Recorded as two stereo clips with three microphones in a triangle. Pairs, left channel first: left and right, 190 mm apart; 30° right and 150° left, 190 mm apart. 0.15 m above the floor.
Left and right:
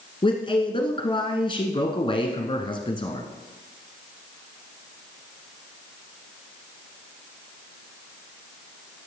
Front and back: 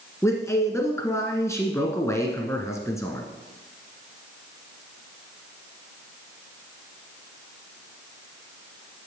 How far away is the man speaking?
About 1.4 m.